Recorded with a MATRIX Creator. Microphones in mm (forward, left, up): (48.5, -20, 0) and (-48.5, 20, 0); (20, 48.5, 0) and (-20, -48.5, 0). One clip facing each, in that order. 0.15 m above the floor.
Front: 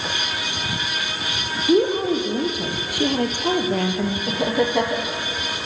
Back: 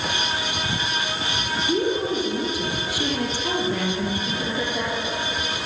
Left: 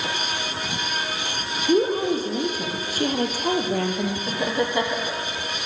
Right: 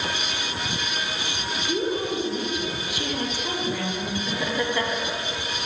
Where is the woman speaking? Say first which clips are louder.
Front 6 dB, left 7 dB; 10° left, 6.5 m; by 4.2 s 20° left, 4.5 m.